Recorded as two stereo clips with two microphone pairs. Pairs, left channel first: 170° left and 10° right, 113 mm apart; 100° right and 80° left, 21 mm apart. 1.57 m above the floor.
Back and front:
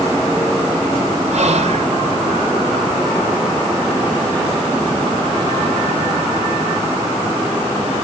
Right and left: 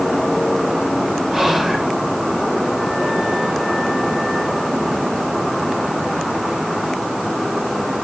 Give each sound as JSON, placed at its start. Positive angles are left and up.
{"t": 1.3, "sound": "whispering", "azimuth_deg": 5, "distance_m": 1.0}